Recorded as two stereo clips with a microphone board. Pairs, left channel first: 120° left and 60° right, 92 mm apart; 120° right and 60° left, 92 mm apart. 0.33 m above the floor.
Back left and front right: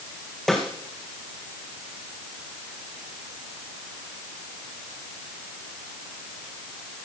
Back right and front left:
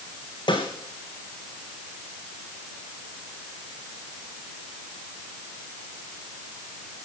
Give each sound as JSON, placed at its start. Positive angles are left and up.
{"t": 0.5, "sound": "a snare drum", "azimuth_deg": -155, "distance_m": 3.5}